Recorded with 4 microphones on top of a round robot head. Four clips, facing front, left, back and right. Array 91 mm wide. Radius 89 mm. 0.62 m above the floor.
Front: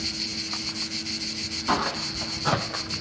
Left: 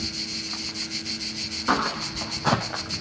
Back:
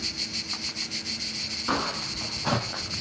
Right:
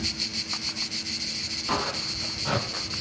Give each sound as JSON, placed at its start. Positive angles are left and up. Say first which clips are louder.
{"t": 1.7, "sound": "footsteps", "louder": "left 5 dB, front 3 dB", "azimuth_deg": 95, "distance_m": 4.5}